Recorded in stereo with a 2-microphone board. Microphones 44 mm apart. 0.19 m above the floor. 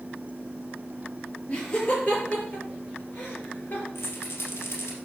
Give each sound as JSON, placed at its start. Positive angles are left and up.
{"t": 1.5, "sound": "laughter", "side_deg": 25, "distance_m": 4.5}
{"t": 4.0, "sound": "a rattle", "side_deg": 65, "distance_m": 3.0}